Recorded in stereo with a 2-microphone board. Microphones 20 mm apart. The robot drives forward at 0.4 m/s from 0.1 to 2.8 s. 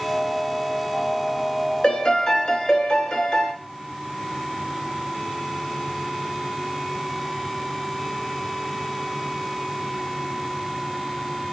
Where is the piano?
40° left (ahead or behind), 0.8 m; by 3.5 s 30° left (ahead or behind), 1.0 m.